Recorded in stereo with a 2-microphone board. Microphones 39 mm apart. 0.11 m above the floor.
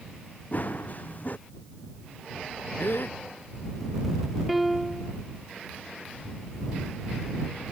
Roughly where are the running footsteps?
Left.